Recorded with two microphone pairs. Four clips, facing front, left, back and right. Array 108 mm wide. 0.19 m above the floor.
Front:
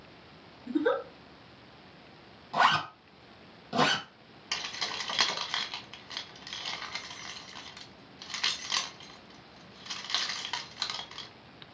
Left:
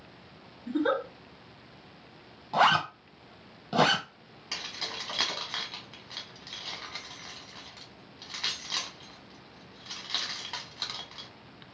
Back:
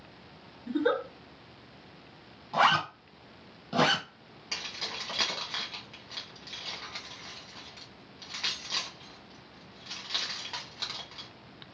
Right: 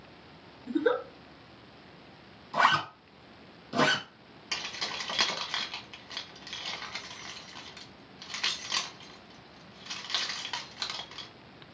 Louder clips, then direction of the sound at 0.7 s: Even, even; 105° left.